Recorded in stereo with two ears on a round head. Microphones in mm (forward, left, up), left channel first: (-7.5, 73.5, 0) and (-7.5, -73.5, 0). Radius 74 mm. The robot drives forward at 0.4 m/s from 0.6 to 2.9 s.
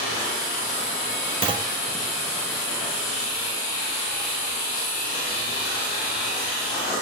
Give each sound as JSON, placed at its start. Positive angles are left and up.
{"t": 1.4, "sound": "a clunk", "side_deg": -35, "distance_m": 0.8}